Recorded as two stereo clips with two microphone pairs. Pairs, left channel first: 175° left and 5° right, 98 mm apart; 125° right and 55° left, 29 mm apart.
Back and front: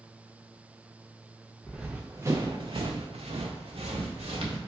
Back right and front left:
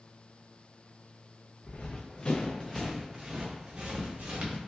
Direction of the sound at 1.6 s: 95° right.